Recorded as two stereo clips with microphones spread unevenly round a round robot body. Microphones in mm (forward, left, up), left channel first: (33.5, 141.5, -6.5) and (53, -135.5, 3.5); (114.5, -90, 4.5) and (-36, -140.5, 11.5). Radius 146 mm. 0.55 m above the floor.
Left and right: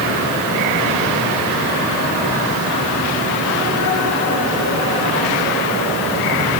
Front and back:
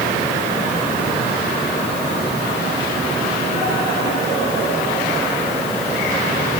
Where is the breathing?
I don't hear breathing.